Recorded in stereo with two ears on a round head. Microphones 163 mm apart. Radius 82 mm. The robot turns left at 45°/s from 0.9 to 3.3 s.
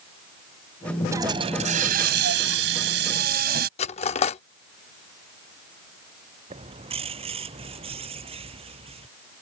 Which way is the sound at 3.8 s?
35° left (ahead or behind).